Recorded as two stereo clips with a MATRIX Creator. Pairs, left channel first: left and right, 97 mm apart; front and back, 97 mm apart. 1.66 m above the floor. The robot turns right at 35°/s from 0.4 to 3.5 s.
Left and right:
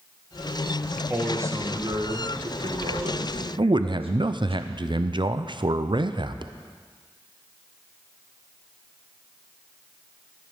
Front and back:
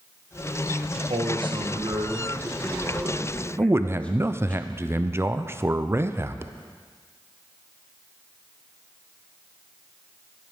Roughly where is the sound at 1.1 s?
Behind.